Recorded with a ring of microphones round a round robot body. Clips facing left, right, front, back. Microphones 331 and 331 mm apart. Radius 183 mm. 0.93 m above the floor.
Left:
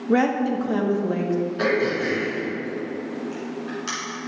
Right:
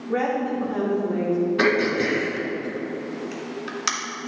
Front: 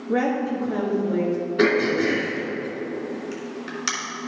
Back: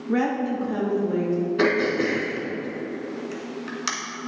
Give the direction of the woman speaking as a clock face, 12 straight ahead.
8 o'clock.